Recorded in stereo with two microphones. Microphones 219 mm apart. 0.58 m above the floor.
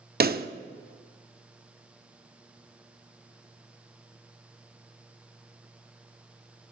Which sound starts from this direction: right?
A pop, at 0.2 s.